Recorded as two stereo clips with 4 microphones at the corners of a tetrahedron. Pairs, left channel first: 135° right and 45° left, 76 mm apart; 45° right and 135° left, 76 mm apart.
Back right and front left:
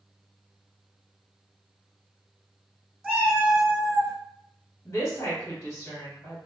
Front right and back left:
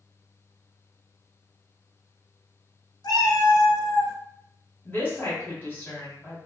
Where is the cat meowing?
35° right, 1.5 m.